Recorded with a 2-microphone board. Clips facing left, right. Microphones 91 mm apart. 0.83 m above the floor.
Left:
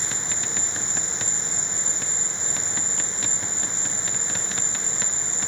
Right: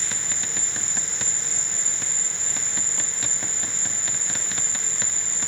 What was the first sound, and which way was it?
An insect, 70° right (ahead or behind).